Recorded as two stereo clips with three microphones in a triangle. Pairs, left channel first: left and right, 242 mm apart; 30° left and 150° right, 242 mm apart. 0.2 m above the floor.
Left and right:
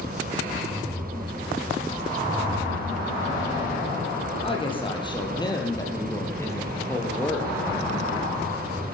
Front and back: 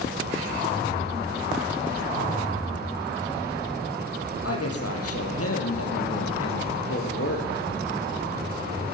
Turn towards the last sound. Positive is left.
turn(degrees=5)